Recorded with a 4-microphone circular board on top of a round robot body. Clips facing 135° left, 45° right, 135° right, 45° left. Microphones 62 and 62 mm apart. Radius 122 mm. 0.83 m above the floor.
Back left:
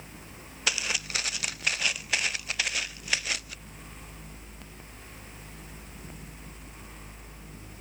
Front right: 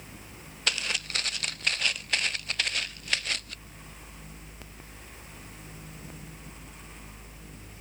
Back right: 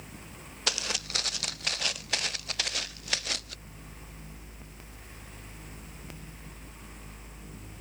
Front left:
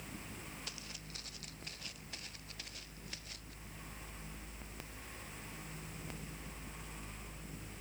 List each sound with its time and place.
0.7 s footsteps: 140° right; by 3.6 s 145° right